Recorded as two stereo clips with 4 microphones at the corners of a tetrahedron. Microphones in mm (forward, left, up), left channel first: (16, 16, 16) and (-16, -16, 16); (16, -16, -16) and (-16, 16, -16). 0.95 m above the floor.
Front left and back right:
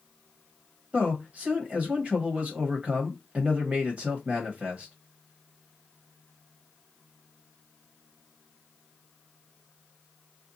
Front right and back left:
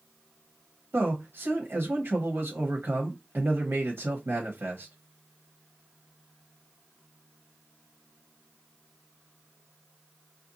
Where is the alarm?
I don't hear an alarm.